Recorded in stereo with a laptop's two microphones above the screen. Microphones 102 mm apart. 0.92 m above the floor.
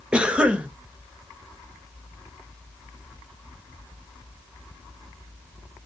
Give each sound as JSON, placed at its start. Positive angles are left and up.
{"t": 0.1, "sound": "a cough", "side_deg": -10, "distance_m": 0.6}